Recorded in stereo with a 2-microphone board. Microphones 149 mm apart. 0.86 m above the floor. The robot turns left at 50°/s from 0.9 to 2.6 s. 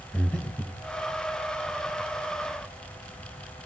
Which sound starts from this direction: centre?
Breathing, at 0.1 s.